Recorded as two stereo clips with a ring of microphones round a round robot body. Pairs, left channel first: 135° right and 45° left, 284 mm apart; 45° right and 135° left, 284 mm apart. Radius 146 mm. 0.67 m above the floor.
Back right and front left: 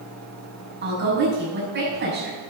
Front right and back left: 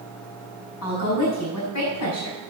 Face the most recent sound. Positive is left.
turn(degrees=-10)